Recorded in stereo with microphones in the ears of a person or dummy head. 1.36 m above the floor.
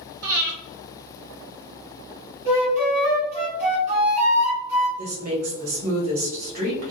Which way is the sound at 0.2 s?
55° right (ahead or behind).